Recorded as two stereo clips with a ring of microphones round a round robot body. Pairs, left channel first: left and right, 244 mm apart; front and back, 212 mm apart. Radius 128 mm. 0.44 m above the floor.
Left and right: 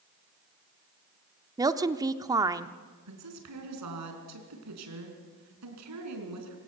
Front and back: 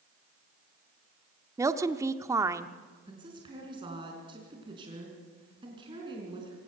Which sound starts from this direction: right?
A woman speaking, at 3.1 s.